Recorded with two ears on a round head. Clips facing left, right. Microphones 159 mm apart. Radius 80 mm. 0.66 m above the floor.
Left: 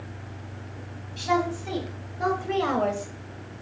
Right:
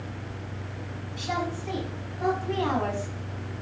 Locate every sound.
1.2 s a woman speaking: 80° left, 4.5 m; by 3.1 s 75° left (ahead or behind), 3 m